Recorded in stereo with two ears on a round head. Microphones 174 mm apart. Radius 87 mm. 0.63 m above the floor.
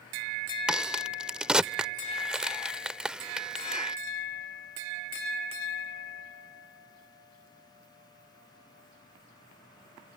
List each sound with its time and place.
0.7 s a crack: 5° right (ahead or behind)